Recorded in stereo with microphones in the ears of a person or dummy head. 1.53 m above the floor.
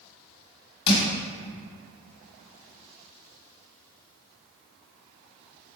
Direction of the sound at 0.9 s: 65° left (ahead or behind).